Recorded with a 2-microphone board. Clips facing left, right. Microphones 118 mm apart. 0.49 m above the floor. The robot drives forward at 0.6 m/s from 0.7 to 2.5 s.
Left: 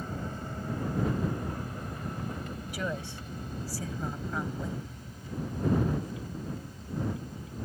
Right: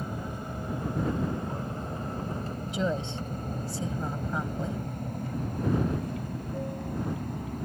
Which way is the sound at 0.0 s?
10° right (ahead or behind).